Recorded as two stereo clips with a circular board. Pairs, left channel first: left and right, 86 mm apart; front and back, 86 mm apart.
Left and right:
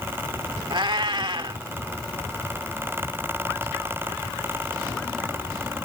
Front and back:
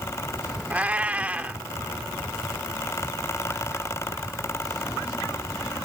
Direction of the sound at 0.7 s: 105° right.